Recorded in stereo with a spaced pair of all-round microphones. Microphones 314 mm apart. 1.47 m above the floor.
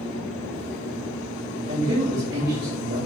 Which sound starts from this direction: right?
A man speaking, at 1.7 s.